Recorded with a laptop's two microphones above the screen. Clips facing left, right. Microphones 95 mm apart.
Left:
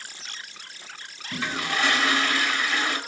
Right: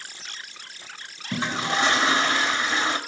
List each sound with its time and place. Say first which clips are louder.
1.3 s a toilet flushing: right 3 dB; 25° right (ahead or behind), 1.2 m